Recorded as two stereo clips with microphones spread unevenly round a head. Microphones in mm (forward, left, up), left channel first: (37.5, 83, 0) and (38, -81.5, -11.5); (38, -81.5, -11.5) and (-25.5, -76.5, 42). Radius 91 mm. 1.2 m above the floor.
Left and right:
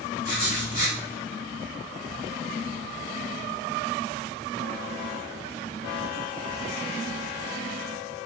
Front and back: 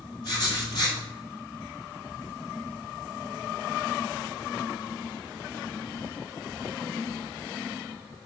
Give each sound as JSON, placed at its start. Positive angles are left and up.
{"t": 0.2, "sound": "writing", "azimuth_deg": 65, "distance_m": 1.7}